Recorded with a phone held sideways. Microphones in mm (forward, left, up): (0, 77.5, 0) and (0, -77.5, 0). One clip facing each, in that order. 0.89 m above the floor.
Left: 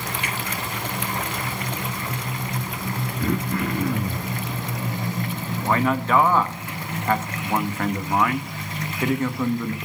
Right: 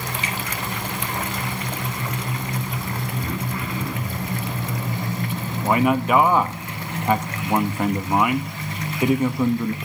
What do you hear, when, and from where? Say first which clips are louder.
0.2 s a finger snap: right 1 dB; 60° left (ahead or behind), 5 m
3.2 s throat clearing: left 4 dB; 60° left (ahead or behind), 1.4 m
5.6 s a man speaking: right 3 dB; 15° right (ahead or behind), 1.1 m